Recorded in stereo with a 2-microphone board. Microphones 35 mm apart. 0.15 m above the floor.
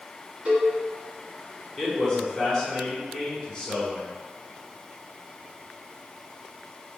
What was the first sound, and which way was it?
A cowbell, 45° right (ahead or behind).